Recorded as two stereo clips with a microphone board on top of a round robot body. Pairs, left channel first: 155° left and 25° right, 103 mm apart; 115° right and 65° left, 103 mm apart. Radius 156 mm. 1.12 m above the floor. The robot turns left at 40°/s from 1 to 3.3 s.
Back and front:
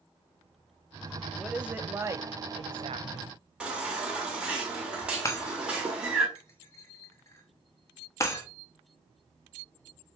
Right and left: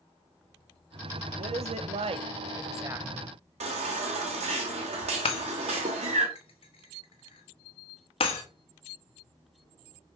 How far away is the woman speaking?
About 0.8 m.